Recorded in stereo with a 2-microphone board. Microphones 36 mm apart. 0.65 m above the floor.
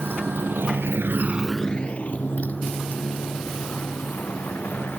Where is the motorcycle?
75° right (ahead or behind); by 5.0 s 55° left (ahead or behind).